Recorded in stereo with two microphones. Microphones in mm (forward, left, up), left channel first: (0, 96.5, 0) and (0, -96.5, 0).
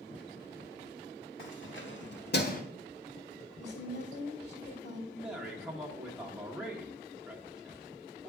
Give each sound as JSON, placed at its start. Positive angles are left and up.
{"t": 1.4, "sound": "keys jangling", "side_deg": 80, "distance_m": 1.8}
{"t": 3.6, "sound": "a woman speaking", "side_deg": 65, "distance_m": 2.5}
{"t": 5.1, "sound": "a man speaking", "side_deg": -5, "distance_m": 1.2}